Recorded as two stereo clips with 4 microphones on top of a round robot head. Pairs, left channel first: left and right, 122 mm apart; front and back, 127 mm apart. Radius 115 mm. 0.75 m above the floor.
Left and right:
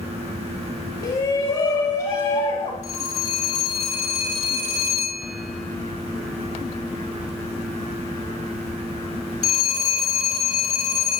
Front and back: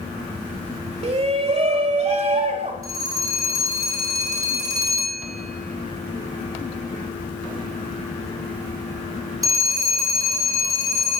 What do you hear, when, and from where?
1.0 s a shout: 150° left, 3 m
2.8 s a phone ringing: 120° left, 8 m